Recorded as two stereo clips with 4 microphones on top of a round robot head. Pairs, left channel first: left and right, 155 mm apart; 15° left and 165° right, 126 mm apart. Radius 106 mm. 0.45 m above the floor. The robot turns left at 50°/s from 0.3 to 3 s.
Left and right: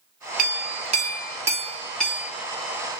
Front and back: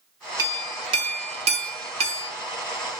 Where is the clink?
105° right, 0.9 m; by 2.3 s 160° left, 0.9 m.